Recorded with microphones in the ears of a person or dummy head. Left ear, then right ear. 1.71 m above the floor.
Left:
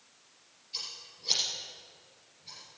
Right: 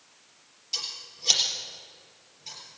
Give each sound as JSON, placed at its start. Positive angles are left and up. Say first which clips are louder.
{"t": 0.7, "sound": "scissors", "louder": "right 6 dB", "side_deg": -50, "distance_m": 3.5}